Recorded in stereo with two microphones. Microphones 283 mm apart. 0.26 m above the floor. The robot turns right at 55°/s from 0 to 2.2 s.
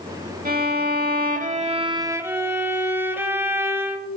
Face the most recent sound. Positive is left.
turn(degrees=-15)